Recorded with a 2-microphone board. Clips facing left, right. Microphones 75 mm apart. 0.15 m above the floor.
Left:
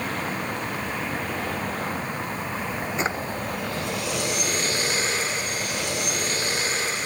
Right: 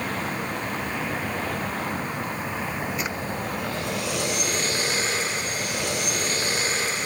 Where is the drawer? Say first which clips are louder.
Left 4 dB; 30° left (ahead or behind).